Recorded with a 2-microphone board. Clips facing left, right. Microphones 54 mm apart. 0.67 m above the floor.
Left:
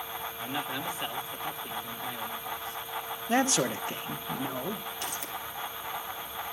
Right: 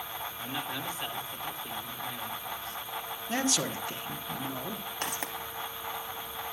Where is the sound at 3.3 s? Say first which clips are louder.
Left 5 dB; 30° left (ahead or behind), 1.1 m.